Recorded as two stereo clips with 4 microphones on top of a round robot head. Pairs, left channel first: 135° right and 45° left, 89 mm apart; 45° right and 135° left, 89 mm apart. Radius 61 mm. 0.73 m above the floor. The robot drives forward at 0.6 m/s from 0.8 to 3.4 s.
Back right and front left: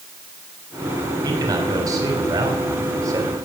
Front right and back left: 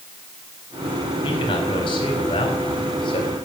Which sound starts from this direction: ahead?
A man speaking, at 1.2 s.